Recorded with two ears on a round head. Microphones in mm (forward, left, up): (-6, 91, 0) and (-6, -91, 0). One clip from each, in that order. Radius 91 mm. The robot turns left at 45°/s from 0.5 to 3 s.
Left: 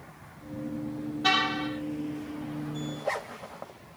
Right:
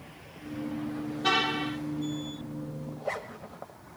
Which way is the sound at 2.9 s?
15° left (ahead or behind).